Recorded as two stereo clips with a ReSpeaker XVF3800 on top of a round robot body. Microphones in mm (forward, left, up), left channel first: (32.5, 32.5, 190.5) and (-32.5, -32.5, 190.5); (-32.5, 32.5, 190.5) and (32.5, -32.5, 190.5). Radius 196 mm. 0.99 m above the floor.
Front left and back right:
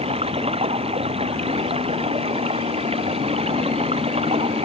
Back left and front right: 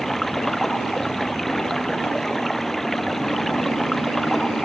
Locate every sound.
0.0 s running water: 140° right